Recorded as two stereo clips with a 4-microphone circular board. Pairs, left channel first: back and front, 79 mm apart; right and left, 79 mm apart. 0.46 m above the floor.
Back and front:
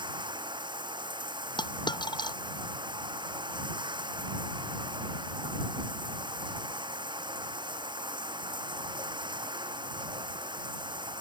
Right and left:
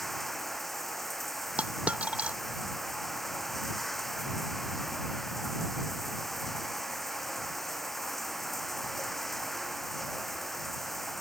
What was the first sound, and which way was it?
Running water, 5° right.